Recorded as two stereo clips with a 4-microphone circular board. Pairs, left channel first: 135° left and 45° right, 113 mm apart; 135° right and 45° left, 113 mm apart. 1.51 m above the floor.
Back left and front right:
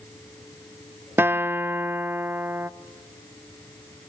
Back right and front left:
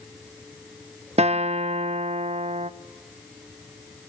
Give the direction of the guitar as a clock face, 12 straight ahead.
11 o'clock.